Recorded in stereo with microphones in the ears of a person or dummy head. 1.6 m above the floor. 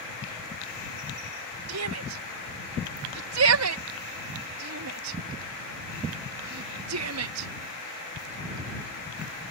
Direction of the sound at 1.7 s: 80° right.